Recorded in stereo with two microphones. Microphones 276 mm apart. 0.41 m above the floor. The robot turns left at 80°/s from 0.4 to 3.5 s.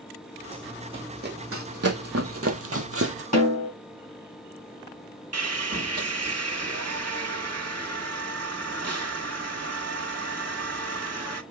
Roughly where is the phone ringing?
I don't hear a phone ringing.